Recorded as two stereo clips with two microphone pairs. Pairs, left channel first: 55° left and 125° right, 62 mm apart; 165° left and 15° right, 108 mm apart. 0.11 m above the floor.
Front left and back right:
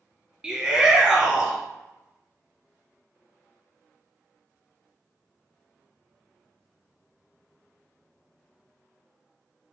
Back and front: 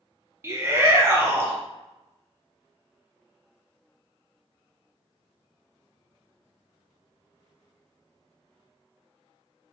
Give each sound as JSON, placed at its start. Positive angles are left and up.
{"t": 0.4, "sound": "a shout", "azimuth_deg": -55, "distance_m": 1.5}